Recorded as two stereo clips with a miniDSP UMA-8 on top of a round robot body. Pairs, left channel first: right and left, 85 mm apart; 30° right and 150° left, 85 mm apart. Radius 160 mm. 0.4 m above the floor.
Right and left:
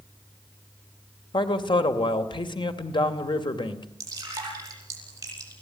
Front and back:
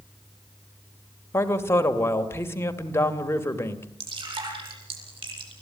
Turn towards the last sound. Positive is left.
turn(degrees=140)